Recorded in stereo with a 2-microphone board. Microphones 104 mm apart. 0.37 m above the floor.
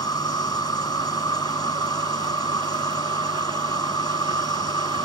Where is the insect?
45° left (ahead or behind).